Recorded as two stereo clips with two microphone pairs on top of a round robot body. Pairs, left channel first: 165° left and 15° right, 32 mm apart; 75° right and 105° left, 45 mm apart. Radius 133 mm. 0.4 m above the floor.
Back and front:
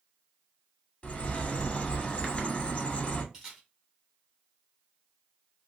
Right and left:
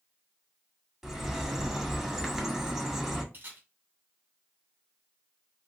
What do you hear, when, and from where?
1.0 s a bird: 170° right, 1.8 m
3.3 s a camera shutter: 55° left, 2 m